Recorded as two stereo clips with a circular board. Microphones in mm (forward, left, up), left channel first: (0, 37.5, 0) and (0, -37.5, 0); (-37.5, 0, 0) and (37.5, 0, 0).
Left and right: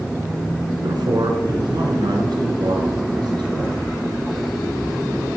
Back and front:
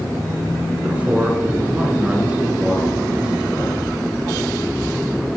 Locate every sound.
0.8 s a man speaking: 70° right, 4 m; by 3.8 s 80° right, 6 m